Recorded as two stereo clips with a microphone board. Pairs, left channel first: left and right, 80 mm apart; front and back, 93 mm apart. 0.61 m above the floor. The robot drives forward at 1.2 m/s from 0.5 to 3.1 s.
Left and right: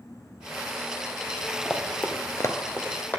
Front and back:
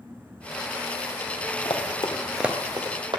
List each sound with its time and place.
1.6 s running footsteps: 5° left, 1.4 m; by 3.2 s 155° left, 1.6 m